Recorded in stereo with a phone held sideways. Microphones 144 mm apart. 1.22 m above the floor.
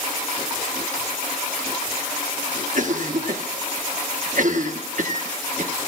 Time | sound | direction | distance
2.8 | a cough | 60° right (ahead or behind) | 1.3 m